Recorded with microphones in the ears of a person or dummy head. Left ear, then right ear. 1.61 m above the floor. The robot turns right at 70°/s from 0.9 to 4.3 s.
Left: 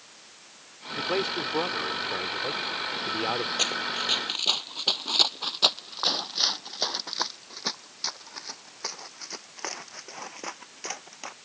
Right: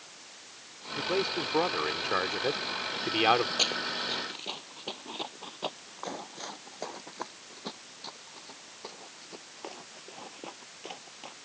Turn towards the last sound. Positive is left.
turn(degrees=55)  # may be behind; listen again after turning